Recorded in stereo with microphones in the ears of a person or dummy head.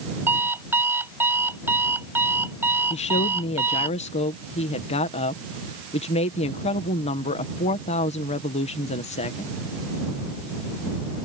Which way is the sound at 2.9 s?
30° left (ahead or behind).